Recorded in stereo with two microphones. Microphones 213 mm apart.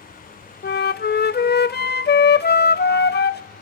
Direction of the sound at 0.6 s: 50° left (ahead or behind).